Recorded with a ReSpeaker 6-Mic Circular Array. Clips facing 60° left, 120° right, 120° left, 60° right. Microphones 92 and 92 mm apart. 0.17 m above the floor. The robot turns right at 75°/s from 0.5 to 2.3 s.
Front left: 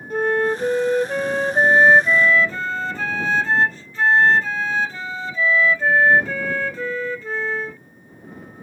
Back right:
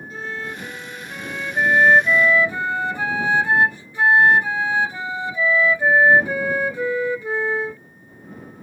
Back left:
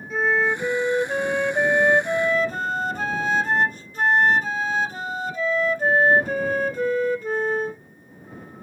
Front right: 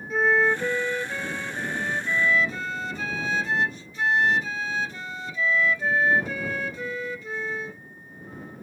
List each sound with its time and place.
0.1 s a flute: 30° left; by 7.8 s 165° left